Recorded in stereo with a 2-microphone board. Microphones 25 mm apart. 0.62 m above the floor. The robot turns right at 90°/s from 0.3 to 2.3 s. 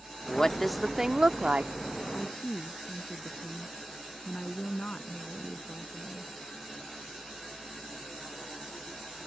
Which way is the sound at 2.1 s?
70° left (ahead or behind).